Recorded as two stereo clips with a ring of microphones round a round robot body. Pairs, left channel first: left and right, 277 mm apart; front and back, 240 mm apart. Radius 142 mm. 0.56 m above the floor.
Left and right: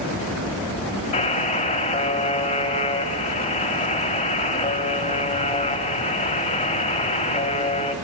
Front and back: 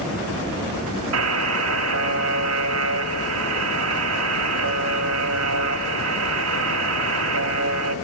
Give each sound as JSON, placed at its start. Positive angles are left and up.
{"t": 1.1, "sound": "a buzzer", "azimuth_deg": 160, "distance_m": 1.0}